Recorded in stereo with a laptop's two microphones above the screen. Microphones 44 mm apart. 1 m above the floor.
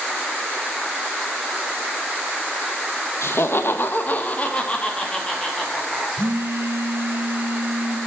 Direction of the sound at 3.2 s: 65° left (ahead or behind).